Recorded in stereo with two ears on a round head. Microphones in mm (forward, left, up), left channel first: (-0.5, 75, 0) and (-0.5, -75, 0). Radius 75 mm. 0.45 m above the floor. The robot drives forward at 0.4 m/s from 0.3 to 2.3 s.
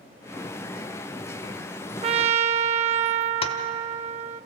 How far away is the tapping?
About 1.5 m.